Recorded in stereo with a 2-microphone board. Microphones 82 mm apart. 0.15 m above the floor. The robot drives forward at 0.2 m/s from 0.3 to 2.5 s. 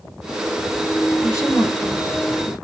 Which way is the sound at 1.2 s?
40° left (ahead or behind).